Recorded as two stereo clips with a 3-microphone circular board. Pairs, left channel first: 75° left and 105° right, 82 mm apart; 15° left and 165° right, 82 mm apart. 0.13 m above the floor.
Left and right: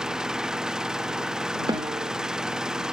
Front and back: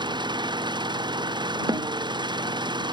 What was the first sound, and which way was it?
An engine running, 175° left.